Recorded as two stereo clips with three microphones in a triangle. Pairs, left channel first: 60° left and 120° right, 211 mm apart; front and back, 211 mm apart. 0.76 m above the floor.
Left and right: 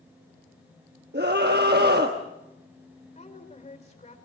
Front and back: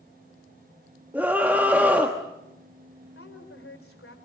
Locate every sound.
1.1 s a scream: 100° right, 1.2 m
3.1 s a woman speaking: straight ahead, 3.5 m